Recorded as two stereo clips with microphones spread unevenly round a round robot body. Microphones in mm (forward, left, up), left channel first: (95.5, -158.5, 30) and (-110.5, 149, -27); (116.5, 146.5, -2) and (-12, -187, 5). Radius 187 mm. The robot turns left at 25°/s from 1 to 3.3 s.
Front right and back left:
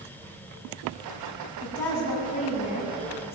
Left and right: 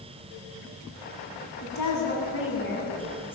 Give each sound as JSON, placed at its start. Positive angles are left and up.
{"t": 1.6, "sound": "a woman speaking", "azimuth_deg": 35, "distance_m": 8.0}